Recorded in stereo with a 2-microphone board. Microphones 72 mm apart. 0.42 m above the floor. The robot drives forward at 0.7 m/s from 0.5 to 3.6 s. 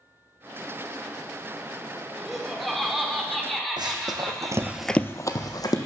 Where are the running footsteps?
75° right (ahead or behind), 1.5 m; by 5.8 s 60° left (ahead or behind), 1.4 m.